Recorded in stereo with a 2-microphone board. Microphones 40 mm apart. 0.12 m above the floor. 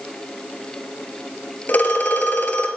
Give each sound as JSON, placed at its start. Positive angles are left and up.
{"t": 1.7, "sound": "a phone ringing", "side_deg": 50, "distance_m": 1.2}